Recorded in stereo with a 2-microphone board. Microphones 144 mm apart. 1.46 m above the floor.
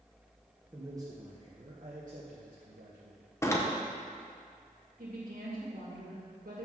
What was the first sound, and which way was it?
A man speaking, 15° right (ahead or behind).